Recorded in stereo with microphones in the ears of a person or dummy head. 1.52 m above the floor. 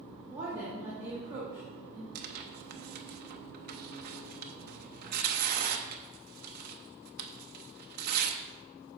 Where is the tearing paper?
55° right (ahead or behind), 0.6 m.